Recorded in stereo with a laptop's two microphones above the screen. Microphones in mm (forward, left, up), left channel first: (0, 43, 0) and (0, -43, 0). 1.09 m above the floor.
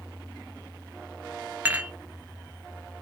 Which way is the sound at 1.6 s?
20° right (ahead or behind).